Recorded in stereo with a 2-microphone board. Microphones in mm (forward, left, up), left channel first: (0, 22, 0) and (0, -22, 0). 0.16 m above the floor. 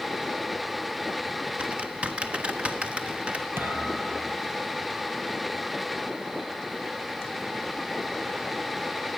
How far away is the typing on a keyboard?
About 1.1 m.